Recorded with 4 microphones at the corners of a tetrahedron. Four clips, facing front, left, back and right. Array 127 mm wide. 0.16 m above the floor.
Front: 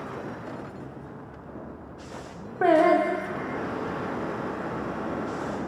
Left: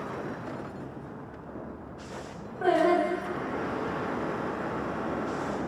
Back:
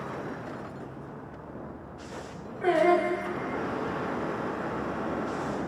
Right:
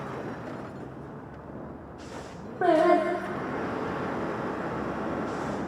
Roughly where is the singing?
Ahead right.